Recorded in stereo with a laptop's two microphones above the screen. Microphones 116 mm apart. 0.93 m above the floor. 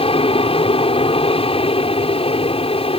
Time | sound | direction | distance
0.0 | an aircraft | 55° left (ahead or behind) | ?